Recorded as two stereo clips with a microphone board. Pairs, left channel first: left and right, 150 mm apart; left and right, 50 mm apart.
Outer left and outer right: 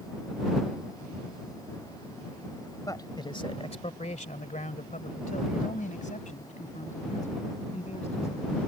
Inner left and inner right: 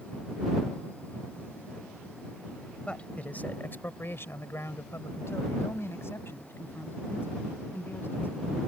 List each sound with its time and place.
2.9 s a man speaking: 25° left (ahead or behind); by 8.6 s 45° left (ahead or behind)